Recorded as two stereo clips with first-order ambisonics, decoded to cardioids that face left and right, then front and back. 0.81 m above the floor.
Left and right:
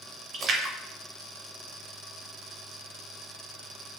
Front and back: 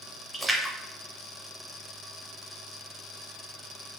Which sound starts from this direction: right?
A splash, at 0.3 s.